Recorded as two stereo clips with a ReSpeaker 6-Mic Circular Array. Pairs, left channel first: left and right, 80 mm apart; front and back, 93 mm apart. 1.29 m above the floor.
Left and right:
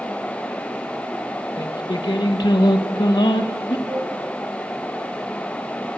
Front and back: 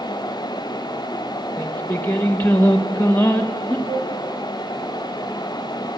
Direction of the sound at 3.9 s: 145° right.